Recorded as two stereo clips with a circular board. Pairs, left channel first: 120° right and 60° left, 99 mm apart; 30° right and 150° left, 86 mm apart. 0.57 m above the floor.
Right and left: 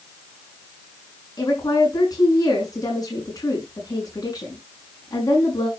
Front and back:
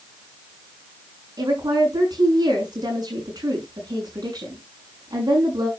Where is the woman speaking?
170° right, 6.5 m.